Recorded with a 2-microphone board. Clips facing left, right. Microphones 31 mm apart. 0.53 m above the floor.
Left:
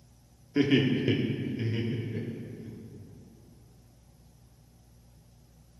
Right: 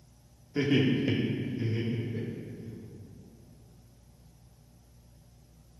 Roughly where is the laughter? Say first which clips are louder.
Left 2 dB; left.